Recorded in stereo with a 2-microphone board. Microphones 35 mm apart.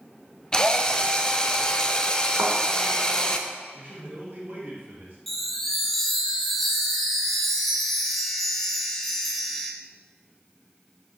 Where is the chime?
Centre (ahead or behind), 1.2 m.